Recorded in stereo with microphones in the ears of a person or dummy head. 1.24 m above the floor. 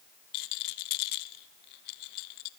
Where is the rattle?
55° left (ahead or behind), 0.7 m.